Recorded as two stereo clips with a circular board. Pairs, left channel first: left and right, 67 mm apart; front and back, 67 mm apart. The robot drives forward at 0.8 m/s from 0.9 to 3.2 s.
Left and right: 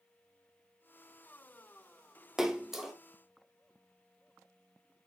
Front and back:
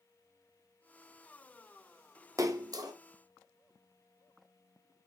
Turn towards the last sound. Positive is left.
turn(degrees=-175)